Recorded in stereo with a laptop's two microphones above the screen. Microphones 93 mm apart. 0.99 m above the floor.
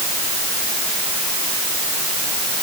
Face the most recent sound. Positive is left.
No sound to turn to.